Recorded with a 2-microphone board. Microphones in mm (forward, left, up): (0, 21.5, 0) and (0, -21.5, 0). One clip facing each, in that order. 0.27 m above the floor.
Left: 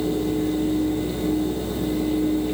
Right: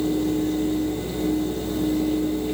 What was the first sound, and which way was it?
Only background noise.